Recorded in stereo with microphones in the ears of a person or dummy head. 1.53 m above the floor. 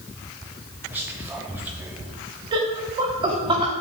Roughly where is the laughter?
Right.